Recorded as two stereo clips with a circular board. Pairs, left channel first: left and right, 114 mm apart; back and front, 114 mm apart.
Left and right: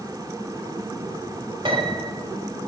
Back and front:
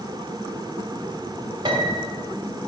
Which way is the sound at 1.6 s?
50° right.